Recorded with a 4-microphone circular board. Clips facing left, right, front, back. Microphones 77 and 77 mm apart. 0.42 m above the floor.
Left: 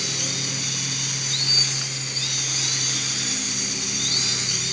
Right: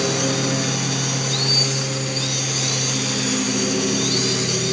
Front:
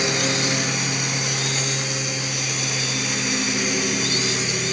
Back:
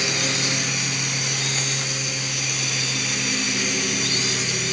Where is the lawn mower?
70° right; by 4.7 s 80° right.